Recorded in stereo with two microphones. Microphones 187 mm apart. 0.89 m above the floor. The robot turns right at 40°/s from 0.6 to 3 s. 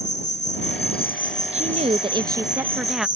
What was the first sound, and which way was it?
An insect, 110° left.